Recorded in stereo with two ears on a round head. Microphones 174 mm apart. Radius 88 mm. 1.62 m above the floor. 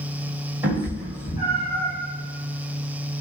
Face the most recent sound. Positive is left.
turn(degrees=-20)  # may be behind; listen again after turning